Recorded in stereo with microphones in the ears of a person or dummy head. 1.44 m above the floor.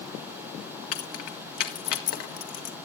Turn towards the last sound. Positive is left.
turn(degrees=60)  # may be behind; listen again after turning